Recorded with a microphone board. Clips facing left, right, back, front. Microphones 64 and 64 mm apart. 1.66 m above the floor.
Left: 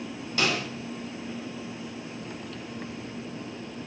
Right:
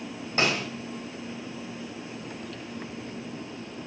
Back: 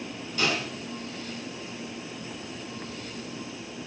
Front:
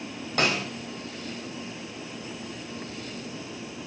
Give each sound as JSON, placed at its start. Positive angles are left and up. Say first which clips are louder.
{"t": 0.4, "sound": "a snare drum", "louder": "right 1 dB, front 2 dB", "azimuth_deg": -30, "distance_m": 3.5}